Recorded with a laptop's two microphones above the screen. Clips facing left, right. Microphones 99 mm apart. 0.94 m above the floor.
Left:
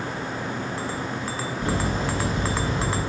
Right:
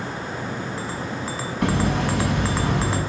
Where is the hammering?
75° right (ahead or behind), 7.5 m.